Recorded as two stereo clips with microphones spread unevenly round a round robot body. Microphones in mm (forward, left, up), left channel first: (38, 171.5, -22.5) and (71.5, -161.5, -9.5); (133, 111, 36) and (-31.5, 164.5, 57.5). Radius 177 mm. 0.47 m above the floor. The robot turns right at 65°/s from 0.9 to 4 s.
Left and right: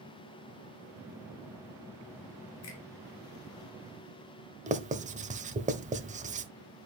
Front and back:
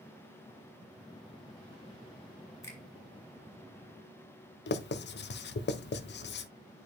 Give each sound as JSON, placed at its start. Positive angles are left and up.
{"t": 2.6, "sound": "a finger snap", "azimuth_deg": 55, "distance_m": 5.0}
{"t": 4.7, "sound": "writing", "azimuth_deg": -15, "distance_m": 1.1}